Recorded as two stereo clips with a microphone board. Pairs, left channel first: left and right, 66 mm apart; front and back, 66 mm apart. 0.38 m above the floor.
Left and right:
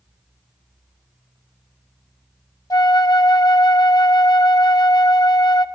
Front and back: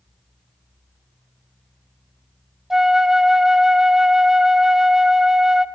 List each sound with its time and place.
2.7 s a flute: 95° left, 0.5 m